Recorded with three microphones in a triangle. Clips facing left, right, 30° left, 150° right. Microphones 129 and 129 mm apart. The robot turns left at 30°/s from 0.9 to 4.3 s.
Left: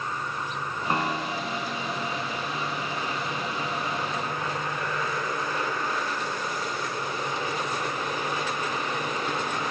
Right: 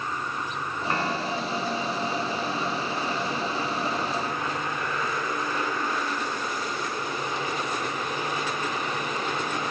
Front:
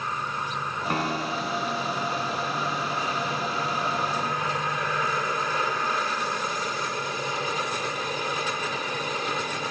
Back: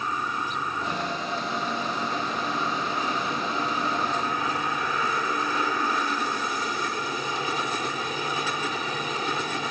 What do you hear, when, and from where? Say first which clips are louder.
0.9 s a piano: even, front 2 dB; 25° left; by 1.8 s 5° right